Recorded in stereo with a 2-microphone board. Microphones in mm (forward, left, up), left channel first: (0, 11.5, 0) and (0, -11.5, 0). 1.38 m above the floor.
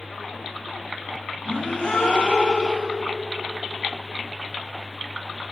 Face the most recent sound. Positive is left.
turn(degrees=55)  # may be behind; listen again after turning